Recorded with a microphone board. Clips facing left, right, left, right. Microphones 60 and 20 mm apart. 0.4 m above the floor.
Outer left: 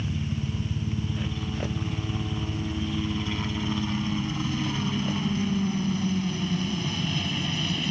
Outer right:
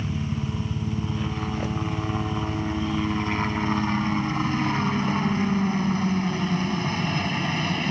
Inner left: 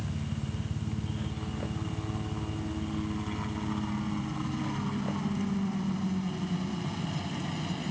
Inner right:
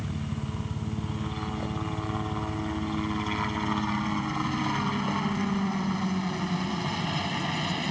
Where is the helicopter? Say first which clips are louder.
Outer right 2 dB, inner right 2 dB; 45° right (ahead or behind); by 7.9 s 40° right (ahead or behind).